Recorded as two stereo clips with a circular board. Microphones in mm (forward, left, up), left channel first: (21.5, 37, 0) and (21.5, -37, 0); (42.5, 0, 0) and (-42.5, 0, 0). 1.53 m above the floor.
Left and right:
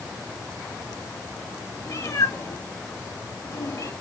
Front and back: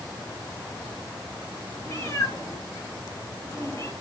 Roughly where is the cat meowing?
Ahead left.